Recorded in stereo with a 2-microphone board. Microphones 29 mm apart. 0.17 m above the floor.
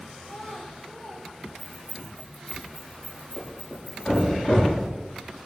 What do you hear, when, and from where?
0.2 s a child speaking: 40° left (ahead or behind), 4.5 m
1.6 s keys jangling: 40° left (ahead or behind), 9.5 m
3.4 s a thud: 45° left (ahead or behind), 9 m